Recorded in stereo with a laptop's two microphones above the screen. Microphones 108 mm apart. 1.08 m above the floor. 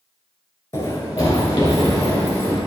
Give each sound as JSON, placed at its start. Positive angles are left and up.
{"t": 0.7, "sound": "running footsteps", "side_deg": 30, "distance_m": 1.2}